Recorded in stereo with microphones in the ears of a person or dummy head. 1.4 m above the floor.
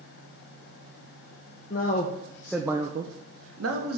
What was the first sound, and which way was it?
A man speaking, 40° left (ahead or behind).